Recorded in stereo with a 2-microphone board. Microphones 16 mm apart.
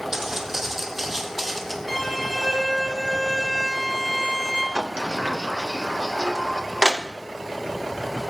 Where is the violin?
Centre (ahead or behind), 2.5 m.